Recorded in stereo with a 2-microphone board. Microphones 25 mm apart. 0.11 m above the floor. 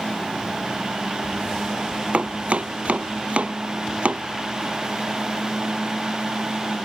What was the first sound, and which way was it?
Chopping, 65° right (ahead or behind).